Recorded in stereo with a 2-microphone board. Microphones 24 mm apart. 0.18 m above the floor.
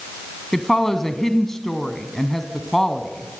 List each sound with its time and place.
0.5 s a woman speaking: 20° left (ahead or behind), 1.3 m